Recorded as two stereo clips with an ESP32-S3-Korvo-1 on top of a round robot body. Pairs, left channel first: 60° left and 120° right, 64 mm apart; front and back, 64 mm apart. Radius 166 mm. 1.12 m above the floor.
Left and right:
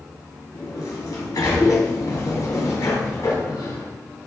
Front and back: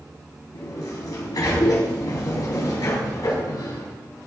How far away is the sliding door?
About 4.5 m.